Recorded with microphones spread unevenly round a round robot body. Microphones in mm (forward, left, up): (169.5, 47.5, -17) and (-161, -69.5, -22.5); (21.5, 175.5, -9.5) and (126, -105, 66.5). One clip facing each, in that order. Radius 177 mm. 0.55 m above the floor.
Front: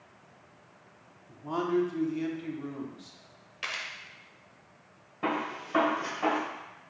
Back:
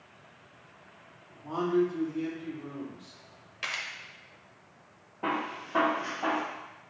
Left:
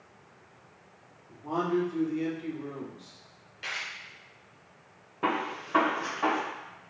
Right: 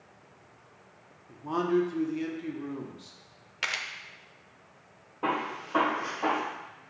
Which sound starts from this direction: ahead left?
A gunshot, at 5.2 s.